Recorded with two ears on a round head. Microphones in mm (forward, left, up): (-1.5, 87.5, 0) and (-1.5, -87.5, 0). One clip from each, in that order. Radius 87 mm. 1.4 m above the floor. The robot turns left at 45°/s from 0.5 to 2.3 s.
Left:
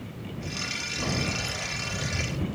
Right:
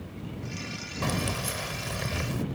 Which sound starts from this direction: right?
Keys jangling, at 1.0 s.